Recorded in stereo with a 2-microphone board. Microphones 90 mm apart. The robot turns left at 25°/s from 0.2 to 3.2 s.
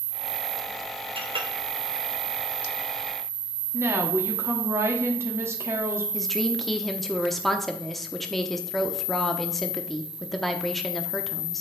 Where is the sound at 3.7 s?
30° right (ahead or behind), 1.3 m.